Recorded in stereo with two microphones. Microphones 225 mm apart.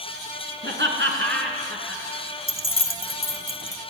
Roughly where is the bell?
No bell in this recording.